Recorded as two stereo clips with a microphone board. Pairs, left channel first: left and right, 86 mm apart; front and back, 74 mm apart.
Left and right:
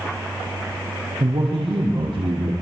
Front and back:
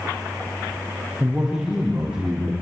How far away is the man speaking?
About 5.5 m.